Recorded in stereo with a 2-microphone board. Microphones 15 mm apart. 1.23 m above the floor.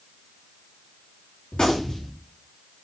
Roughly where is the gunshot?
Left.